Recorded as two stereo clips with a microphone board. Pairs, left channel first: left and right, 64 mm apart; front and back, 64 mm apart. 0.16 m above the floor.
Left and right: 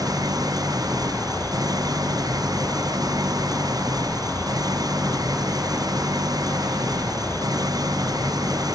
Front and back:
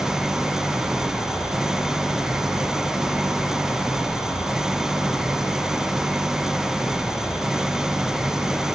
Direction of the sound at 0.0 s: 95° right.